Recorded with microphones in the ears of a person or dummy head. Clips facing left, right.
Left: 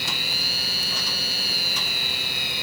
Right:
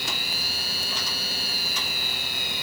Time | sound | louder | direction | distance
0.0 | a machine running | left 1 dB | 60° left (ahead or behind) | ?